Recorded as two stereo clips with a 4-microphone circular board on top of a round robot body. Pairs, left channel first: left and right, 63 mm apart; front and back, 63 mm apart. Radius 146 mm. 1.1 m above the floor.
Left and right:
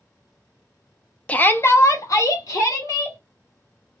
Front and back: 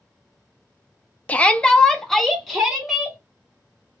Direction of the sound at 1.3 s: 45° left.